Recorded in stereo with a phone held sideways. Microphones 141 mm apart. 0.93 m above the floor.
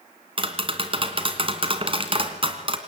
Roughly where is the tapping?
Right.